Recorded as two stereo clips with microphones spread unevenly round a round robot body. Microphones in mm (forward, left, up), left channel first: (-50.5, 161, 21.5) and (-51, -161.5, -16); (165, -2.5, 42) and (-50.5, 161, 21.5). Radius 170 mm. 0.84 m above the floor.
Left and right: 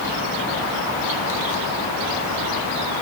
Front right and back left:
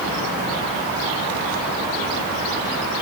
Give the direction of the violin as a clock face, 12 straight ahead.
No violin in this recording.